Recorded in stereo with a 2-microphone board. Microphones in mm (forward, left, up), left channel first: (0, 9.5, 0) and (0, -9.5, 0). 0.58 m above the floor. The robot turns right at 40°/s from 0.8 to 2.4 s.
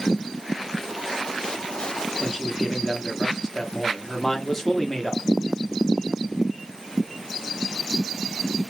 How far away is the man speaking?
About 0.8 m.